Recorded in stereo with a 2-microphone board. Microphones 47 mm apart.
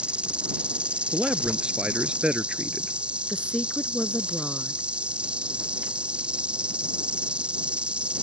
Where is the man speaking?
20° right (ahead or behind).